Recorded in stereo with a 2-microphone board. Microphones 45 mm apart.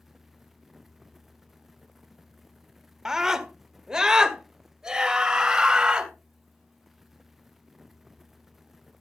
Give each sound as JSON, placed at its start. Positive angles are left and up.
{"t": 3.0, "sound": "a scream", "side_deg": -10, "distance_m": 1.5}